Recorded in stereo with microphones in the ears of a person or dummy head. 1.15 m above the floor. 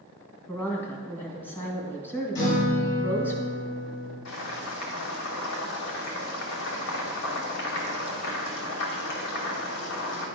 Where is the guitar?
70° left (ahead or behind), 3.5 m.